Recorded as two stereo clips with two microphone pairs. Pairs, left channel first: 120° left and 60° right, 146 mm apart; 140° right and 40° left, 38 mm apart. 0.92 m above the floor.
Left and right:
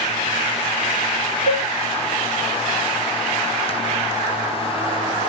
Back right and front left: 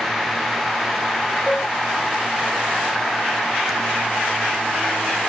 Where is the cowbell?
155° left, 1.5 m.